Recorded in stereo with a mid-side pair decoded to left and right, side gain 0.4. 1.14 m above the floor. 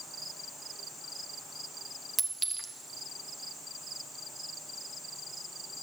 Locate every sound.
2.2 s a clink: 25° right, 1.1 m